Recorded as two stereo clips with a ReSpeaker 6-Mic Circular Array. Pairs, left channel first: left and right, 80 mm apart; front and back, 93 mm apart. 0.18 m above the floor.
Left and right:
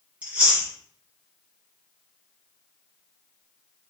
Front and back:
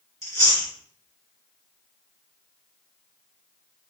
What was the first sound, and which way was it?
Chewing, 30° right.